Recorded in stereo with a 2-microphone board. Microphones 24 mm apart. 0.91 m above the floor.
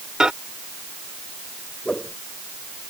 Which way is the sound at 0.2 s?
30° right (ahead or behind).